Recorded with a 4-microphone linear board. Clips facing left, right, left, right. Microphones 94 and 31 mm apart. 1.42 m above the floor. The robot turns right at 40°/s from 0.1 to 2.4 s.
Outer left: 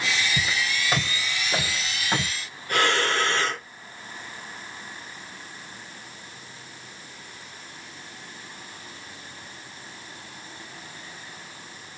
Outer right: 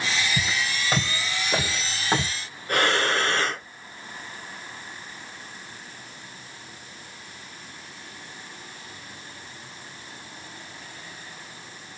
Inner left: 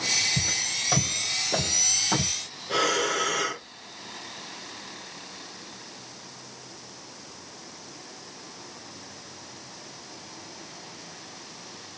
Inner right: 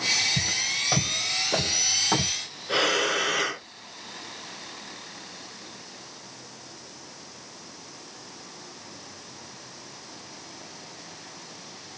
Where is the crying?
I don't hear crying.